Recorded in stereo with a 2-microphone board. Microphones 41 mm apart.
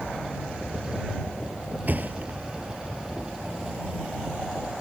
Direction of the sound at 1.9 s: 45° right (ahead or behind).